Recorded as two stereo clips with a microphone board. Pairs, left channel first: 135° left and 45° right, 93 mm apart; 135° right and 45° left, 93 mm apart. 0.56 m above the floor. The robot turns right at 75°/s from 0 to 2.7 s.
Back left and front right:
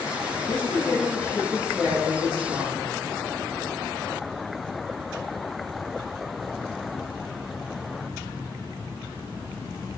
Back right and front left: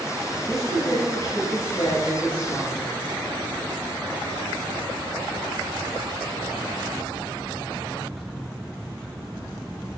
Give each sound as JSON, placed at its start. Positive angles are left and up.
{"t": 0.5, "sound": "a woman speaking", "azimuth_deg": 130, "distance_m": 3.0}